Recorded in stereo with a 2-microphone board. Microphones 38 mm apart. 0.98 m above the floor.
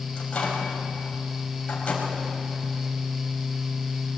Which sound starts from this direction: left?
A microwave, at 0.2 s.